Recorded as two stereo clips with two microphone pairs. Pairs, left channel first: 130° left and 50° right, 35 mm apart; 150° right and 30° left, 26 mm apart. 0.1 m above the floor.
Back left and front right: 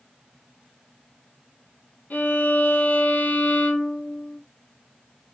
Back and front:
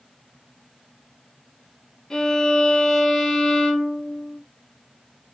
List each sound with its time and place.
2.1 s a violin: 145° left, 1.6 m